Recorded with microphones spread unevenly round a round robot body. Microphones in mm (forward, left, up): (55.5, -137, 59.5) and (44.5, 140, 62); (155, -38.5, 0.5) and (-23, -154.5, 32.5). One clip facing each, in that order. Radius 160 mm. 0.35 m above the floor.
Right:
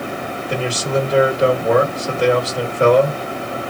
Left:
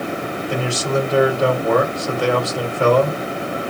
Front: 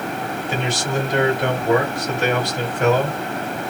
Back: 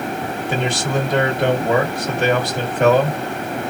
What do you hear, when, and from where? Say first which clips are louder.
0.5 s a man speaking: right 1 dB, back 3 dB; 150° right, 1.7 m